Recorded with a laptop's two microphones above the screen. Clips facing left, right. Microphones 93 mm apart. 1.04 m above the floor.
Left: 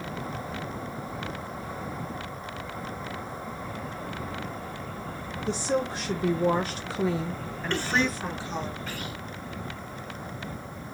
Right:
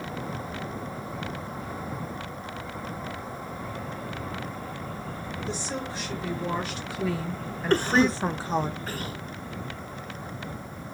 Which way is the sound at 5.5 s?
70° left (ahead or behind).